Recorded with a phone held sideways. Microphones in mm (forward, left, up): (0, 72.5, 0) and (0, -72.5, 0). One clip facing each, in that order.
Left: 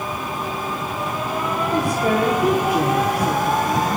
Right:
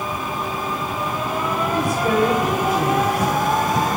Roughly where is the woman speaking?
Left.